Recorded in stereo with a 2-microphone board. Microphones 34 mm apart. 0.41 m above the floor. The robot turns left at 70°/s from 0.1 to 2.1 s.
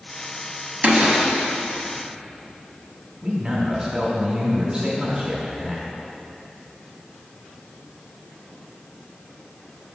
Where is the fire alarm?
I don't hear a fire alarm.